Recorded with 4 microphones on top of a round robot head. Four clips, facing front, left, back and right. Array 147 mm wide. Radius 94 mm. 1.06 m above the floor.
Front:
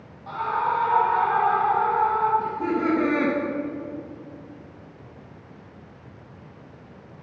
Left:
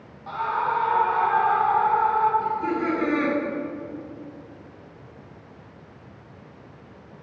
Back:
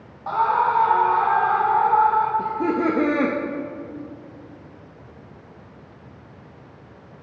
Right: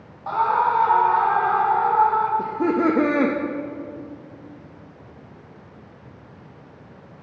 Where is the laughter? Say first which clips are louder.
Right 4 dB, back 3 dB; 120° right, 0.8 m.